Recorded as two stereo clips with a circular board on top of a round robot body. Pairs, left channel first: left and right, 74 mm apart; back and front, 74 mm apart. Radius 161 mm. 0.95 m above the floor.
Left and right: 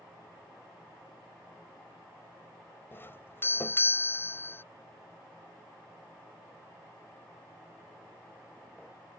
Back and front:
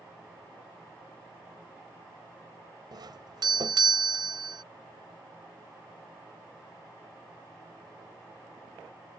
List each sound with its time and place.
2.9 s a doorbell: 30° left